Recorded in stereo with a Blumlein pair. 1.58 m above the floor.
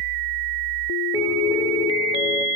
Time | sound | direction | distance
1.1 | a piano | 5° left | 2.0 m